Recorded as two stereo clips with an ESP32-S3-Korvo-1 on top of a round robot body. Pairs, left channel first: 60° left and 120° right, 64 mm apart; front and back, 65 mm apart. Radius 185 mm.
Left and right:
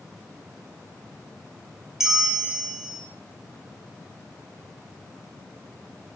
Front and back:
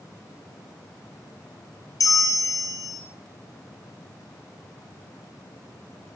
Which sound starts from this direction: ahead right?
A bell, at 2.0 s.